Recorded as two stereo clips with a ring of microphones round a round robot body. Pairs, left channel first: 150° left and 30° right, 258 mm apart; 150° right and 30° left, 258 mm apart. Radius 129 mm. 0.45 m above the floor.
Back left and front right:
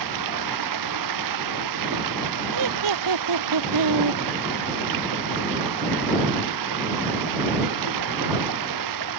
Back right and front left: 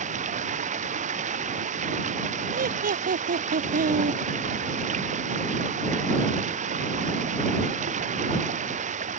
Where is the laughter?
30° right.